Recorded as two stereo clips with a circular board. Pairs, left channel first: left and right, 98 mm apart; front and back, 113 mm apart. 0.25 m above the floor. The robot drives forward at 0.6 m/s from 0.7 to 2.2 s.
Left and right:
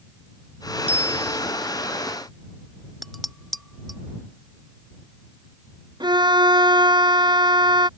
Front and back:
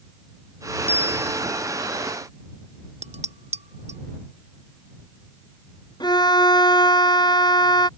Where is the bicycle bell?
75° right.